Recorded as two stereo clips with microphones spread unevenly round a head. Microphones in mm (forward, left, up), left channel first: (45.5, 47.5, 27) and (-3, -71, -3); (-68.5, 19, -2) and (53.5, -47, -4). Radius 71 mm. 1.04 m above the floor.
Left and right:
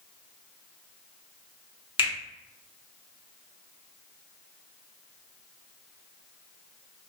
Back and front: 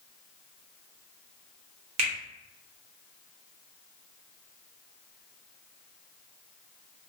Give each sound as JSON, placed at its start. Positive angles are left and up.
{"t": 2.0, "sound": "a finger snap", "azimuth_deg": 15, "distance_m": 1.1}